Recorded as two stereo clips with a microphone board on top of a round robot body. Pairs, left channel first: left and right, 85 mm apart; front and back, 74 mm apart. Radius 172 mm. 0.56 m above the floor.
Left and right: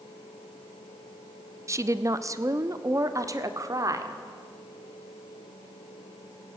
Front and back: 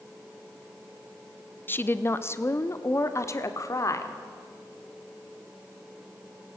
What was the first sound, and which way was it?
A woman speaking, 50° right.